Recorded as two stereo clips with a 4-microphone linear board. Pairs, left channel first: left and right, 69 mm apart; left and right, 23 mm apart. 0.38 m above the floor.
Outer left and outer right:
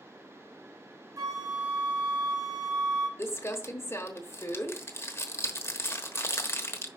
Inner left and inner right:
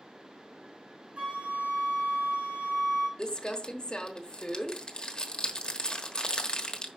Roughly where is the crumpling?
Left.